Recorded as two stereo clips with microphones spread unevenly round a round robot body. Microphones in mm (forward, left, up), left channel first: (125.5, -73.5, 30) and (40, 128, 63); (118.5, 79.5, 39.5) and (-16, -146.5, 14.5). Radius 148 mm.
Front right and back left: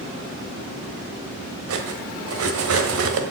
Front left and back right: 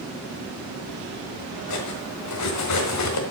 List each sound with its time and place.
1.7 s cutlery clinking: 95° left, 1.6 m